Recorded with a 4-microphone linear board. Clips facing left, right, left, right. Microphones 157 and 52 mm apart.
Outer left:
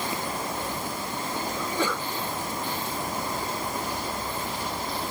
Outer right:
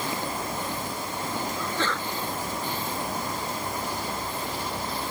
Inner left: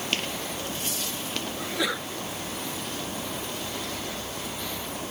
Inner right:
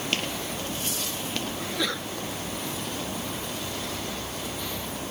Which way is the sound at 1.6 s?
10° left (ahead or behind).